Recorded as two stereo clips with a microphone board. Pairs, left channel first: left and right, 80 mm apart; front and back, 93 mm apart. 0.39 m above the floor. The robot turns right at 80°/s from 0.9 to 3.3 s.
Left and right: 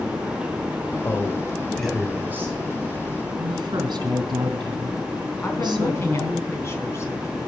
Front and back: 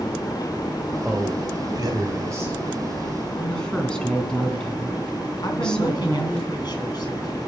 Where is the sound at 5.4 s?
35° left, 3.5 m.